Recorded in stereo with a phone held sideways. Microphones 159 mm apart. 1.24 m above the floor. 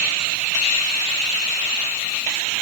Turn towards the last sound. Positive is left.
No sound to turn to.